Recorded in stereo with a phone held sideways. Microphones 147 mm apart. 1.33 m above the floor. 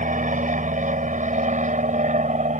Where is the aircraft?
60° right (ahead or behind); by 2.6 s 55° right (ahead or behind).